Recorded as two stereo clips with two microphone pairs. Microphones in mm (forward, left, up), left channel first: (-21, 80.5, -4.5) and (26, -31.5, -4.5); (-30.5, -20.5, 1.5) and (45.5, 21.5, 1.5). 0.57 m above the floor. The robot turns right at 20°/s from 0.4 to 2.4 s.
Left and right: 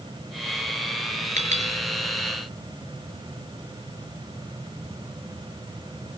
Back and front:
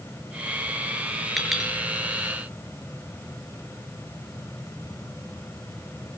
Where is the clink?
60° right, 6 m; by 1.7 s 55° right, 6 m.